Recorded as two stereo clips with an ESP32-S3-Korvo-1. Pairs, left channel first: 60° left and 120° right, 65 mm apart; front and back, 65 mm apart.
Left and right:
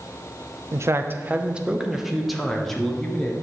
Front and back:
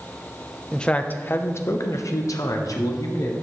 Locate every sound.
0.7 s a man speaking: 80° right, 0.6 m; by 3.3 s 20° right, 1.6 m